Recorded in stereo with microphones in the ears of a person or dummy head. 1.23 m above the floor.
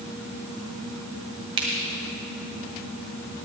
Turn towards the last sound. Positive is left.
turn(degrees=-30)  # may be behind; listen again after turning